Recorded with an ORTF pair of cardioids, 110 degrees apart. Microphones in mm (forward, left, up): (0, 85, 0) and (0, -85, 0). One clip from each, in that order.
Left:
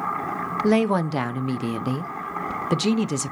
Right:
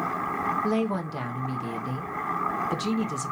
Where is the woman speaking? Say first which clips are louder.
Left 6 dB; 45° left, 0.6 m.